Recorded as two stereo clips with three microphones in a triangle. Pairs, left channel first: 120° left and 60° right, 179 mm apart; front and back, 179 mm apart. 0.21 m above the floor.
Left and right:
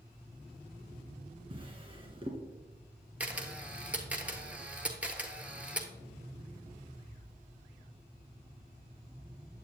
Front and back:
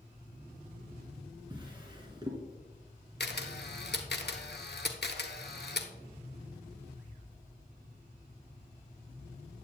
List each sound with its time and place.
1.5 s a drawer: 120° right, 1.3 m
3.2 s a camera shutter: 20° left, 0.7 m